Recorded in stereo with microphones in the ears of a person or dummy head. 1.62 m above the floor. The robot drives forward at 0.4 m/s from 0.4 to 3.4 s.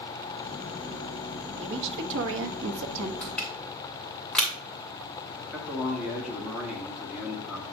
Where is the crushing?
Centre (ahead or behind), 2.5 m.